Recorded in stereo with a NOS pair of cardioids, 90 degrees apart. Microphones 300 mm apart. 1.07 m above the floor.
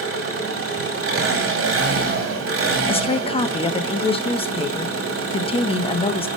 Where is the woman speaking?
20° left, 0.8 m.